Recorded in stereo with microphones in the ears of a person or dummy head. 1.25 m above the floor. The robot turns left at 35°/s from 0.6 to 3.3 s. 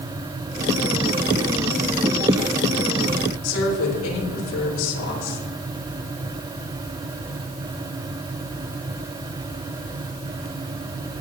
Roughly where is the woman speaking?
Left.